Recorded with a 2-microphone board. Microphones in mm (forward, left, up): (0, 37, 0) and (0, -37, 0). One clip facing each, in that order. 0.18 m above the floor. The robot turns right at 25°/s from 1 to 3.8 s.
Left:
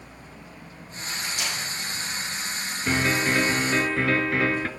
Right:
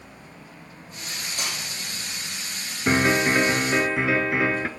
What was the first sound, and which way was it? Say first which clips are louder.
Cutlery clinking: left 2 dB; 35° right (ahead or behind).